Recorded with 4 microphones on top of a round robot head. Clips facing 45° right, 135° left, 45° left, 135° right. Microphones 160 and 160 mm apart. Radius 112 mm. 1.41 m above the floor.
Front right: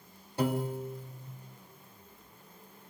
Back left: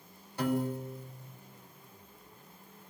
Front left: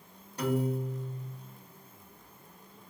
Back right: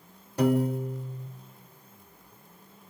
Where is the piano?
115° right, 1.6 m.